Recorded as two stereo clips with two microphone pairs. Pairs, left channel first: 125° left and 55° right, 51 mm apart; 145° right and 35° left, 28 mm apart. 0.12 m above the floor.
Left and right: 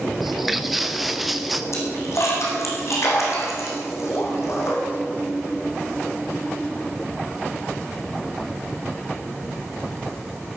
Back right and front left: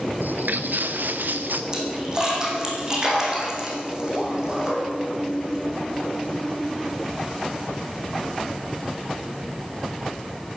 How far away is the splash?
About 4 m.